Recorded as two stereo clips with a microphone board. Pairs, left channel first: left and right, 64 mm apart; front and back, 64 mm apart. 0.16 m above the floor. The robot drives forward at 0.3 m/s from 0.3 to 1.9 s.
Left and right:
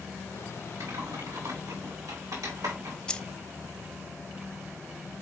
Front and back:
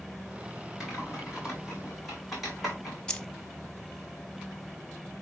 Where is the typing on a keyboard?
90° right, 4.5 m; by 3.0 s 95° right, 4.5 m.